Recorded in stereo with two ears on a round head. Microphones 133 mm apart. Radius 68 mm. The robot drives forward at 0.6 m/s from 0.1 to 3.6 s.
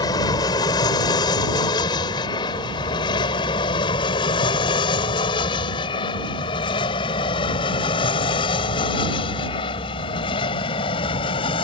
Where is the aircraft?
25° left (ahead or behind); by 11.6 s 35° left (ahead or behind).